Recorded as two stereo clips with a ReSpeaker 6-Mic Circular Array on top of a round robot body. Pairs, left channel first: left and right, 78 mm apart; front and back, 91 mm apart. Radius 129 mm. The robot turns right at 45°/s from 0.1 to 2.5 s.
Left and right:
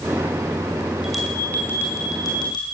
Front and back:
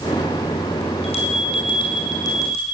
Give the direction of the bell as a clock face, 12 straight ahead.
12 o'clock.